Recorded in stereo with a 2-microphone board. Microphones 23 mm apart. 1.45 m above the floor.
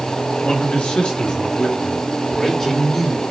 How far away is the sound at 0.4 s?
About 3 m.